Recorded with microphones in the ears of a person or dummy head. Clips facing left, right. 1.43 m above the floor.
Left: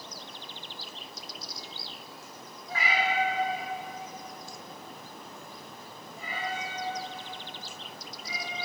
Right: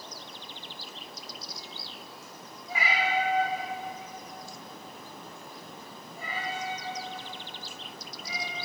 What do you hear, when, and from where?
2.7 s a cat meowing: 10° right (ahead or behind), 1.8 m; by 8.6 s 60° right (ahead or behind), 3.5 m